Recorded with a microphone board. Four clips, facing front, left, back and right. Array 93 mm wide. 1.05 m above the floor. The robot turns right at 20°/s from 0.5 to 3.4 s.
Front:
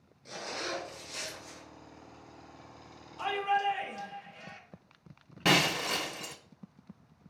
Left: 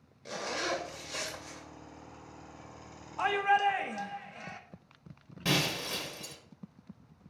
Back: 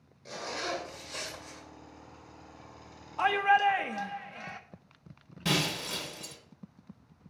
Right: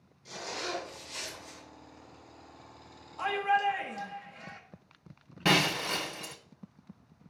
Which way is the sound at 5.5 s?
35° right.